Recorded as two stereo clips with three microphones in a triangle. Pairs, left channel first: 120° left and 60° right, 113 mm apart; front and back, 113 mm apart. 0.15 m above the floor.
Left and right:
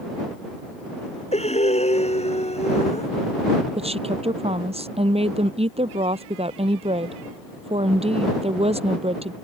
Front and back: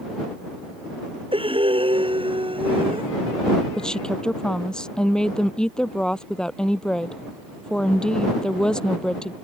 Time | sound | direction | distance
1.3 | breathing | 140° left | ?
3.8 | a woman speaking | 85° right | ?